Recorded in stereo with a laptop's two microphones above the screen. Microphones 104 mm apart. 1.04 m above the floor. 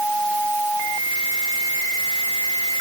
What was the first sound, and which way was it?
Only background noise.